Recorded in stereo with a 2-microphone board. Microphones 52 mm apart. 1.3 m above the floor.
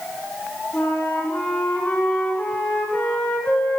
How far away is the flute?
About 4 m.